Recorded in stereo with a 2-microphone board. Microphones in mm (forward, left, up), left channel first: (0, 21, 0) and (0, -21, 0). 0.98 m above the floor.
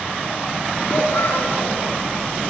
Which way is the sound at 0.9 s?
80° left.